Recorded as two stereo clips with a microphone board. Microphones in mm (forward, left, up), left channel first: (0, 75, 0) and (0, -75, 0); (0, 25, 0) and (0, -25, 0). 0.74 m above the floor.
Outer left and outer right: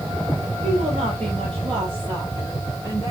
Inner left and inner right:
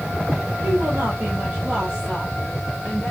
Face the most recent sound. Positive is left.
turn(degrees=-20)  # may be behind; listen again after turning